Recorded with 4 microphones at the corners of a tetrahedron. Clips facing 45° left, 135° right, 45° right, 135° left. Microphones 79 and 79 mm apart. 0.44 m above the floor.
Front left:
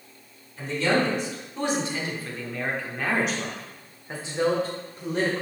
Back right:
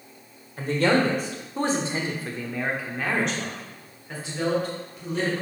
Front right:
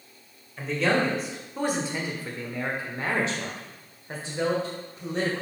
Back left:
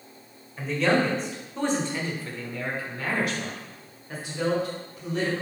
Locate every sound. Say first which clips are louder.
0.6 s a man speaking: back right 2 dB, back left 1 dB; 135° right, 1.6 m; by 5.4 s straight ahead, 1.8 m